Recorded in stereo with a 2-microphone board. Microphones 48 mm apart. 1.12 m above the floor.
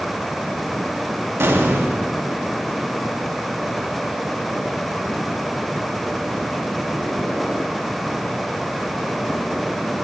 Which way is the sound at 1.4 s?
60° right (ahead or behind).